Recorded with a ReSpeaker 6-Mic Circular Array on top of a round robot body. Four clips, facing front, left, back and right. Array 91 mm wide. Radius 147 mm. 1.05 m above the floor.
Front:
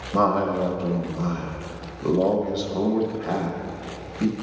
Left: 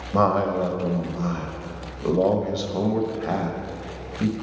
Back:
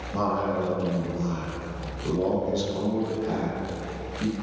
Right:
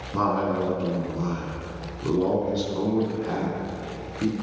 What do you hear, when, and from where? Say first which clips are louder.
0.1 s a man speaking: left 3 dB, front 5 dB; 65° left, 1.4 m